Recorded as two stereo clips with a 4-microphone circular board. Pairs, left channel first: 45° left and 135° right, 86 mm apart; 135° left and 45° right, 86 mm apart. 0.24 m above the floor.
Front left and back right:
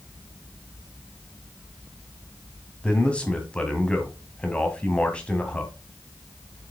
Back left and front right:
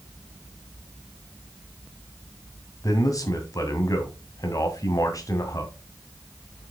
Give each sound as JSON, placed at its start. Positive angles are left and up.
{"t": 2.8, "sound": "a man speaking", "azimuth_deg": 115, "distance_m": 1.9}